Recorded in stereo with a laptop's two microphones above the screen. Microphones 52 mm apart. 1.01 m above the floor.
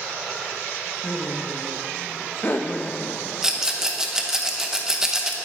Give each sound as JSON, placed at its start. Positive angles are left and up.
{"t": 1.0, "sound": "laughter", "side_deg": 60, "distance_m": 1.5}
{"t": 3.4, "sound": "a rattle", "side_deg": -15, "distance_m": 1.1}